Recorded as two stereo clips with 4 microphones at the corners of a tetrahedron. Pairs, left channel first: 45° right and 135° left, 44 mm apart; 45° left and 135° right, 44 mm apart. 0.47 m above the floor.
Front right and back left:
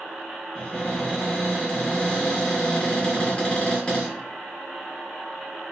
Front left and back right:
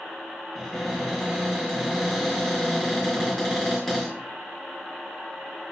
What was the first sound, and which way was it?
A cupboard door, 40° right.